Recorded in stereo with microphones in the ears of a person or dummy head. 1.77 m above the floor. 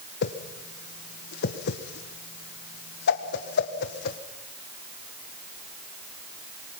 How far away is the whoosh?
About 1.6 m.